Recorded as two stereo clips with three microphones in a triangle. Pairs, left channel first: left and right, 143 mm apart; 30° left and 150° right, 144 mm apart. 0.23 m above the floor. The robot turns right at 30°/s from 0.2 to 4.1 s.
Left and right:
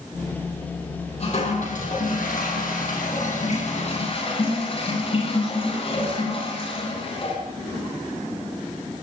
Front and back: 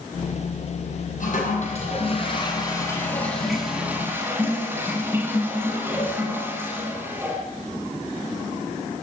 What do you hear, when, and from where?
1.2 s a toilet flushing: 50° left, 8.5 m; by 7.4 s 135° left, 8.5 m